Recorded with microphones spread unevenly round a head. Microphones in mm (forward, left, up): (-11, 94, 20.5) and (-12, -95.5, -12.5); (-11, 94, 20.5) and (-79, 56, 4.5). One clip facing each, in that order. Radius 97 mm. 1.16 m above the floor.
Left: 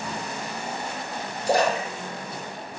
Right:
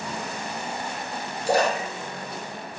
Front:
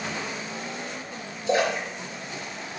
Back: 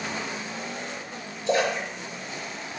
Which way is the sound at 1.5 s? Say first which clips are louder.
Even, even; 150° right.